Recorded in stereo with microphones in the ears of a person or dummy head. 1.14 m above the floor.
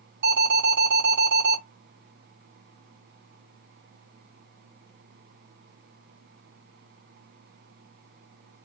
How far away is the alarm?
About 2.5 m.